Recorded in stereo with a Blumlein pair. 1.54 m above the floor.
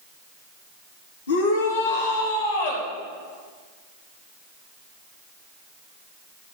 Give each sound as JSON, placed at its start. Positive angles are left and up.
{"t": 1.3, "sound": "a shout", "azimuth_deg": 65, "distance_m": 3.5}